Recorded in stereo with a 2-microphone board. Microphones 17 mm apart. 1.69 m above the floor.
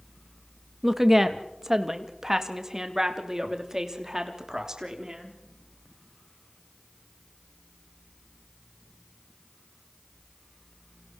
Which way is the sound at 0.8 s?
15° right (ahead or behind).